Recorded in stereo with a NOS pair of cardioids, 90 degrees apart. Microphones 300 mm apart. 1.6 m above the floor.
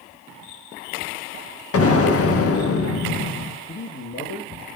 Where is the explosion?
50° left, 2.0 m.